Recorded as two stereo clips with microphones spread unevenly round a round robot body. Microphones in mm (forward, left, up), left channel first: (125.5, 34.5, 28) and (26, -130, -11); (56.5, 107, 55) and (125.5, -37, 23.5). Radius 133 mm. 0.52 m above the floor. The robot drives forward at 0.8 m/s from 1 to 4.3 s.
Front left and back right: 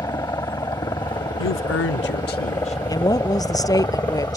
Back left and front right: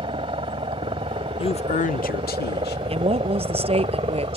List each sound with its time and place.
0.0 s a helicopter: 10° right; by 4.4 s 15° right
1.4 s a man speaking: 55° left; by 2.8 s 130° left
2.9 s a woman speaking: 10° right; by 4.4 s 15° right